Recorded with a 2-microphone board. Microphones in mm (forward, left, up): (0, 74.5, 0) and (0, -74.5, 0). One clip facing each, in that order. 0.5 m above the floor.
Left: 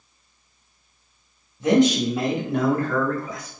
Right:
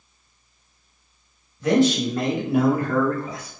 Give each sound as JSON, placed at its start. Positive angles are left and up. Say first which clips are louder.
{"t": 1.6, "sound": "a man speaking", "louder": "left 1 dB", "side_deg": 25, "distance_m": 1.5}